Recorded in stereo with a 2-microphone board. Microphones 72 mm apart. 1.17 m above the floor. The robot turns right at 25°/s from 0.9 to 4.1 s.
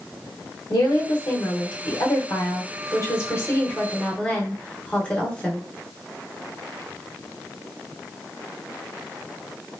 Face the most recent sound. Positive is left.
turn(degrees=160)